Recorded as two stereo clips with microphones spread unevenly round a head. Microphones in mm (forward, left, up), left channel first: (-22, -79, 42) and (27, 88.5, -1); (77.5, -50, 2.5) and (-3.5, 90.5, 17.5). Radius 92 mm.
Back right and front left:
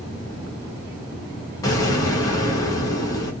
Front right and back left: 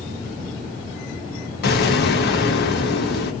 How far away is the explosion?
About 0.9 m.